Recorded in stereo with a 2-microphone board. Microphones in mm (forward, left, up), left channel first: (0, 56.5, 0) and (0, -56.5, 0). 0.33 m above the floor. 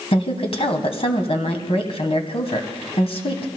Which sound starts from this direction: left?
A woman speaking, at 0.1 s.